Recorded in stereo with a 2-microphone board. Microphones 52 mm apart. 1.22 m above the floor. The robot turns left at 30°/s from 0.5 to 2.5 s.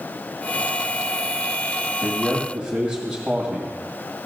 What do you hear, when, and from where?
2.0 s a man speaking: 5° right (ahead or behind), 2 m; by 3.7 s 15° right (ahead or behind), 2 m